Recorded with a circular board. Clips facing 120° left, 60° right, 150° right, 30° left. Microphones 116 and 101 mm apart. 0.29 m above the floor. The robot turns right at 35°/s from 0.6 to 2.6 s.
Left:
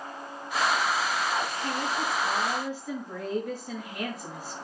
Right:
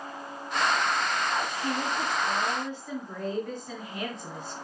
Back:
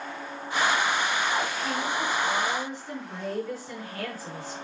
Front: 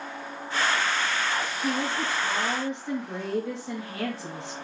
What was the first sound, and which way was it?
A woman speaking, 5° left.